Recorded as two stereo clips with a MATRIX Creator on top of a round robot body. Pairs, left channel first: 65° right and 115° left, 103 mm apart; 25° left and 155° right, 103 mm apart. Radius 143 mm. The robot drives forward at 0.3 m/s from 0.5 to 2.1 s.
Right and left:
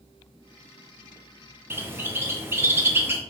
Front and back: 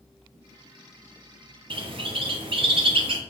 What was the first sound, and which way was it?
A bird, straight behind.